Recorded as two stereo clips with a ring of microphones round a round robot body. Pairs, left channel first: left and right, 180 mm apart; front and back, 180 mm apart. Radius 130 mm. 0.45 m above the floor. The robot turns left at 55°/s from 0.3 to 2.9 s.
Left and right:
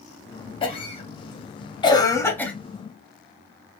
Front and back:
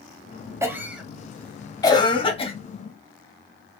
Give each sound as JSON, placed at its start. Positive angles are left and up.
{"t": 0.6, "sound": "a cough", "azimuth_deg": 120, "distance_m": 0.8}